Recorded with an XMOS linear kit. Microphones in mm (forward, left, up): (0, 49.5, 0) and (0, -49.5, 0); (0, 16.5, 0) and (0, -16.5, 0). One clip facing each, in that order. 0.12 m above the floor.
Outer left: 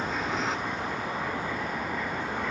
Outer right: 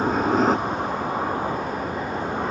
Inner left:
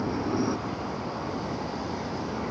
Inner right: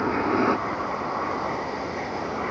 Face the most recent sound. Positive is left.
turn(degrees=-40)  # may be behind; listen again after turning